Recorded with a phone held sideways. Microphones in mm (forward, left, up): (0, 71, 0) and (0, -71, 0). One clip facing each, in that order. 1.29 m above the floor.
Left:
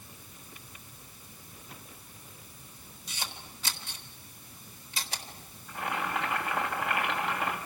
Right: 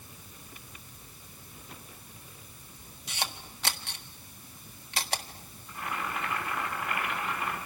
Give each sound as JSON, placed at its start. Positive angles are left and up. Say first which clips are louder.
{"t": 3.1, "sound": "a camera shutter", "louder": "right 5 dB", "side_deg": -65, "distance_m": 1.6}
{"t": 5.7, "sound": "boiling", "louder": "left 3 dB", "side_deg": 70, "distance_m": 4.0}